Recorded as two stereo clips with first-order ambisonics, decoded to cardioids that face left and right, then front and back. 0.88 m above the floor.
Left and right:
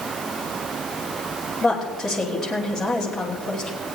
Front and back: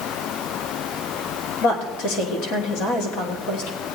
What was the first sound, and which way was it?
A woman speaking, 15° left.